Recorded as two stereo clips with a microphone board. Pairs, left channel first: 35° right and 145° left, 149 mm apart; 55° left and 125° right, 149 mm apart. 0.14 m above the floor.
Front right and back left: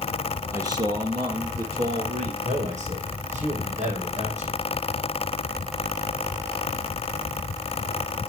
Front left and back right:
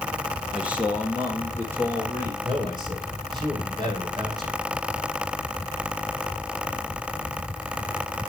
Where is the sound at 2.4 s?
Straight behind, 3.5 m.